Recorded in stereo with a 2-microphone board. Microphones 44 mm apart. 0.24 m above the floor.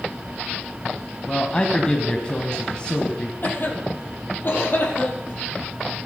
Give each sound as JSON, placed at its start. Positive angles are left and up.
{"t": 1.3, "sound": "a man speaking", "side_deg": 25, "distance_m": 1.8}
{"t": 3.4, "sound": "a cough", "side_deg": 50, "distance_m": 6.0}